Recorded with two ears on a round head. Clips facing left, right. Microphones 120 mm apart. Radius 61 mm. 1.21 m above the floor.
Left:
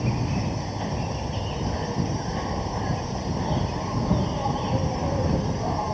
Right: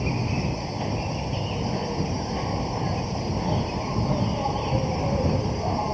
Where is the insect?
5° right (ahead or behind).